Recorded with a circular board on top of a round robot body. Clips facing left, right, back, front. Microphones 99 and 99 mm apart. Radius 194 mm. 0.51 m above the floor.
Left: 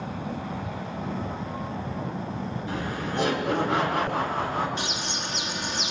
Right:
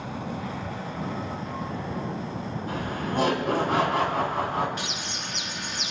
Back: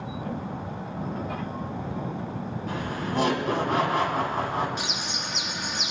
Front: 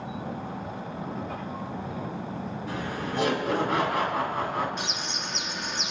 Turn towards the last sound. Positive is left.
turn(degrees=100)